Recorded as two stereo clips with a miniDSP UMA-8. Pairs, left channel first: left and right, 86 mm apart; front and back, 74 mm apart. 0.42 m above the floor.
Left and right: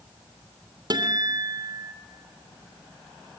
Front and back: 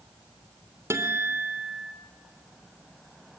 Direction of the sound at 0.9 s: 125° right.